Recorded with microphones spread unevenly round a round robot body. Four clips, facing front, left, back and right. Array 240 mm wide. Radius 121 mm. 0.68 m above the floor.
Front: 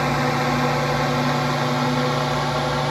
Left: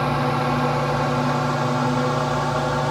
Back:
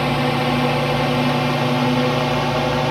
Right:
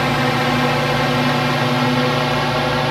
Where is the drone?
120° right; by 2.9 s 135° right.